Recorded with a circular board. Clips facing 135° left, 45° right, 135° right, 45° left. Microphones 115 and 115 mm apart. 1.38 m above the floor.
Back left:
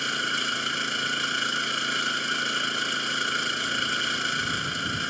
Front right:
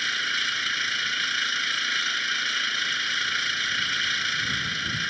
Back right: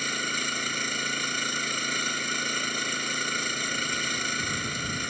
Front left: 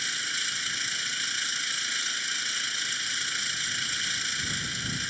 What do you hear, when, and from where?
0.0 s an engine running: 170° right